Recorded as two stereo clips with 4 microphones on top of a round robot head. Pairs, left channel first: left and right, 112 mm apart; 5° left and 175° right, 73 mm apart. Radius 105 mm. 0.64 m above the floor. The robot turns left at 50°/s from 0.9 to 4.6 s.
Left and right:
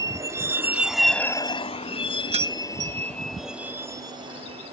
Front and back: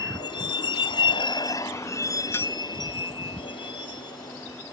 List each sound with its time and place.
0.0 s a vehicle: 30° right; by 4.7 s 55° right
2.3 s keys jangling: 60° right; by 3.0 s 90° right